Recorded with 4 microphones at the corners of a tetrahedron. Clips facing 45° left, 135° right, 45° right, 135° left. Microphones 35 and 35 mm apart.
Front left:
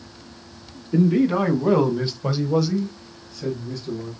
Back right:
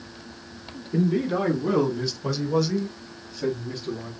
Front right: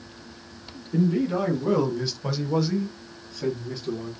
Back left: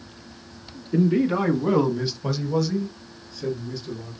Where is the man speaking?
85° left, 2.5 m; by 4.1 s 75° right, 2.5 m.